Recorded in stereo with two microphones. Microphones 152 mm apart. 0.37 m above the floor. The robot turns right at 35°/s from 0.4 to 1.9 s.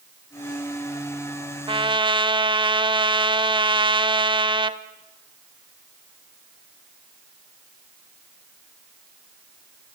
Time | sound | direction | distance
1.7 | a trumpet | 35° right (ahead or behind) | 1.0 m